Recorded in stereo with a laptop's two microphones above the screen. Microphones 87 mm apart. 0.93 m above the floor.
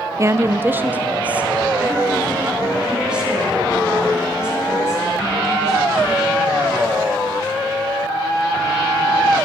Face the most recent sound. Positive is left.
turn(degrees=-5)  # may be behind; listen again after turning